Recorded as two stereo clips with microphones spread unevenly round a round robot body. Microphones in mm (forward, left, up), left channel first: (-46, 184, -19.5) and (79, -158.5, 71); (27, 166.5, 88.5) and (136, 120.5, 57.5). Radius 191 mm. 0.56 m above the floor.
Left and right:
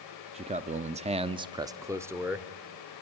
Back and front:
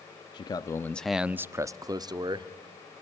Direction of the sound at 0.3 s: 155° right.